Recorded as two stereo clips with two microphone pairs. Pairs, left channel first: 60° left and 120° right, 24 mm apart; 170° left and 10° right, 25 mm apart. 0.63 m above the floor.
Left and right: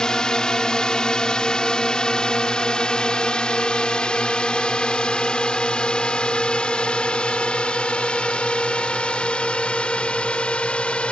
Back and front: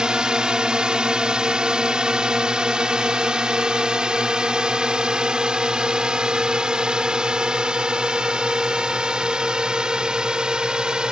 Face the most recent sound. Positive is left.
turn(degrees=40)